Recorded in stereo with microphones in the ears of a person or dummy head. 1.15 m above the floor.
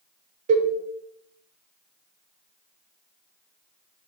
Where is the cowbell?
45° right (ahead or behind), 0.8 m.